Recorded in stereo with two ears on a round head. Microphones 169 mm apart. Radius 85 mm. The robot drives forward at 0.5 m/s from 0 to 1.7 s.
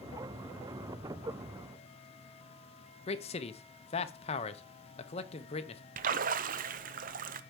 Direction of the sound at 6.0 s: 45° right (ahead or behind).